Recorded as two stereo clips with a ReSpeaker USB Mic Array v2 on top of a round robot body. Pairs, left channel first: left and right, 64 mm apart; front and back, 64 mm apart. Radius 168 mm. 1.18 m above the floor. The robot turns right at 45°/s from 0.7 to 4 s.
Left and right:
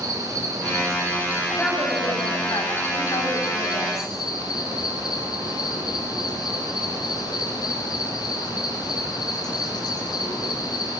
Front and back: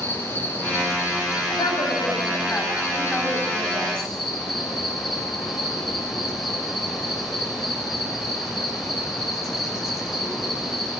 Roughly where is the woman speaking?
Ahead.